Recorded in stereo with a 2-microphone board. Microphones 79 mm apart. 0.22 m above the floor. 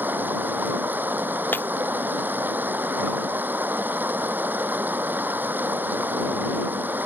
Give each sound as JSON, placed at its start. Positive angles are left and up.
{"t": 0.0, "sound": "running water", "side_deg": -25}
{"t": 1.5, "sound": "breaking glass", "side_deg": 25}